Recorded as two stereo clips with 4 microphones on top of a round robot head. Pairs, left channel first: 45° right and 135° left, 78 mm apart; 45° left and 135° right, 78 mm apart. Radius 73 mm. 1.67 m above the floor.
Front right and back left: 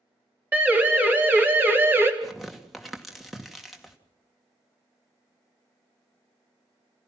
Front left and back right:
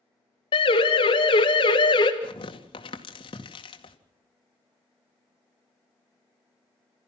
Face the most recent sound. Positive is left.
turn(degrees=45)